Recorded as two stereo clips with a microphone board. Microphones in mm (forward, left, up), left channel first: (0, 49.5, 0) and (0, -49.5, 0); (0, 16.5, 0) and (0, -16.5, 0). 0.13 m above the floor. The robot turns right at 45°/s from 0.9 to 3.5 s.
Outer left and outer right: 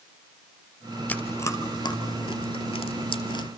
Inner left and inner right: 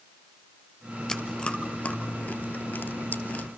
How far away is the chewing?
About 1.5 m.